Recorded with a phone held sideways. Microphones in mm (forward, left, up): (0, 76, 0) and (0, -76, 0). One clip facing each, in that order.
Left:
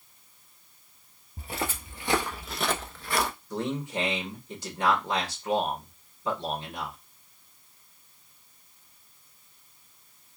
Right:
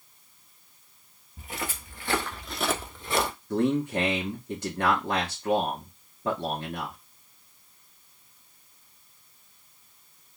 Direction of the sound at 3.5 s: 55° right (ahead or behind).